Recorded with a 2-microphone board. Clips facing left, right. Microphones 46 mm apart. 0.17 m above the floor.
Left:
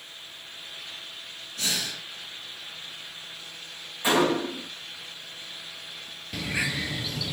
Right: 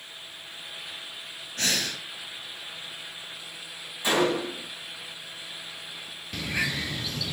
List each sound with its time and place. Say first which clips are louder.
1.6 s breathing: right 3 dB; 50° right (ahead or behind), 2.5 m
4.0 s a gunshot: left 1 dB; 20° left (ahead or behind), 4.5 m
6.3 s a bird: even; 5° left (ahead or behind), 1.1 m